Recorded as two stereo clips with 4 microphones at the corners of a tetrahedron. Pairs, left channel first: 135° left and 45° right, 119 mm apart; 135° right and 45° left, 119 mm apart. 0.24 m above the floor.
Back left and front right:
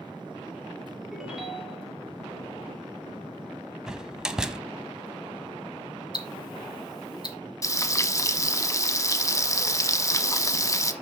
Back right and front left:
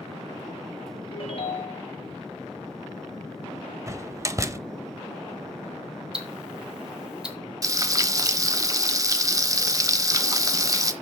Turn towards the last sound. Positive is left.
turn(degrees=90)